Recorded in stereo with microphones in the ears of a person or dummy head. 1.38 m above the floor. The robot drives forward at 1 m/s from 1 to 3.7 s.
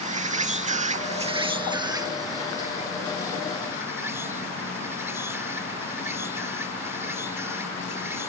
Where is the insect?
30° right (ahead or behind); by 8.3 s 5° right (ahead or behind).